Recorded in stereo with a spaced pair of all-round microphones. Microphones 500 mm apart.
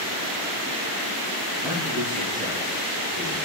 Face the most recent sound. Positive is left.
turn(degrees=-5)  # may be behind; listen again after turning